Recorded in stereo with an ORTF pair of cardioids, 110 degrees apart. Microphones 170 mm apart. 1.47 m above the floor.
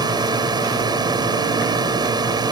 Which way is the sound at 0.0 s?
25° right.